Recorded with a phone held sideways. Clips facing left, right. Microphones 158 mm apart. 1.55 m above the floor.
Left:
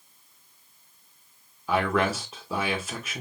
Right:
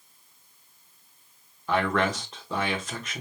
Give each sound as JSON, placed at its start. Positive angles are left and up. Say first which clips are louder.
{"t": 1.7, "sound": "a man speaking", "louder": "left 1 dB", "side_deg": 10, "distance_m": 1.6}